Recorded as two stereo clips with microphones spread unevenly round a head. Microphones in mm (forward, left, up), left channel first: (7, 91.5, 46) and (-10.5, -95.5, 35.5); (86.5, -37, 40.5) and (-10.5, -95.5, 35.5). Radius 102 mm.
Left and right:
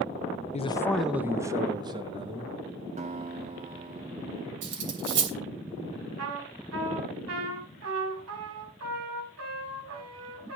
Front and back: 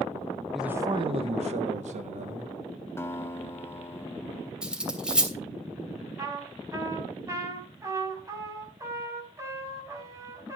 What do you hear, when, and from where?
0.5 s a man speaking: 120° left, 0.6 m; by 2.5 s 160° right, 2.5 m
3.0 s a guitar: 40° right, 1.2 m
4.6 s cutlery clinking: 65° right, 3 m
6.2 s a trumpet: 85° right, 4.5 m